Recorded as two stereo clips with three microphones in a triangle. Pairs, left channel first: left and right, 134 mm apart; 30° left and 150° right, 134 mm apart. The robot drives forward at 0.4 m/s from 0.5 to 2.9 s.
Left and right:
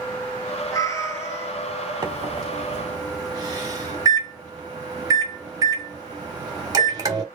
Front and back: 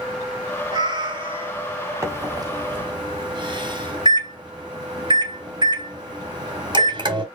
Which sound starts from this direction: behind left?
A cat meowing, at 0.7 s.